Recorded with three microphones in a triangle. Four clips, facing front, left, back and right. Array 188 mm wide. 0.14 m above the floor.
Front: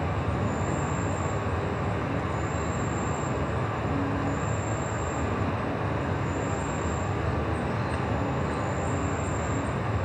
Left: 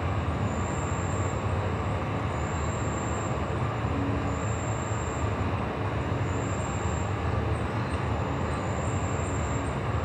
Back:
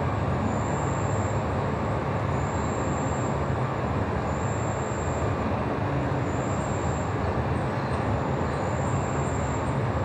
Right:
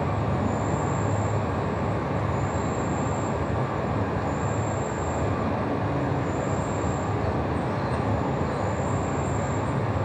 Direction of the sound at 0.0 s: 120° right.